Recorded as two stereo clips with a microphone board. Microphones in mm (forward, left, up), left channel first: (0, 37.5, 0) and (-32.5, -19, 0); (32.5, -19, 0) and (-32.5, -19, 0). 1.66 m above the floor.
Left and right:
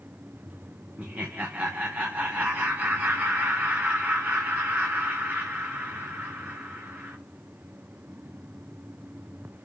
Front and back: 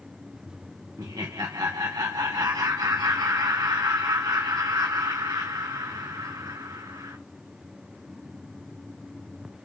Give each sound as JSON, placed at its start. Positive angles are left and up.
{"t": 1.0, "sound": "laughter", "azimuth_deg": 175, "distance_m": 1.3}